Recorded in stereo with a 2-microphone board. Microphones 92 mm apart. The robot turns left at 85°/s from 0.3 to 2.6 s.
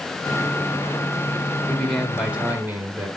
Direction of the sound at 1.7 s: 15° left (ahead or behind).